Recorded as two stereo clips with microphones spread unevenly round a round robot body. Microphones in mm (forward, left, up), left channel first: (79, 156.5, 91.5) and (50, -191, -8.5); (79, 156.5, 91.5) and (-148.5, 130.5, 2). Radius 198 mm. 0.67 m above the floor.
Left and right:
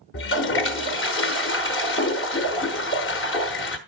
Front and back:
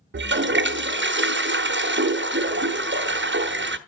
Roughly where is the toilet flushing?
Behind left.